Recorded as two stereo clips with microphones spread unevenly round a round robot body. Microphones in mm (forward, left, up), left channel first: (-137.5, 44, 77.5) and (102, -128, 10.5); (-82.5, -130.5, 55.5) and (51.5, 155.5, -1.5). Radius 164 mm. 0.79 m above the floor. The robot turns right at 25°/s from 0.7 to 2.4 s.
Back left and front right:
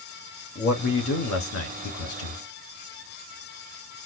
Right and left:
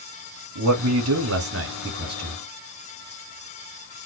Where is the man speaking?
80° left, 1.8 m; by 2.4 s 120° left, 1.8 m.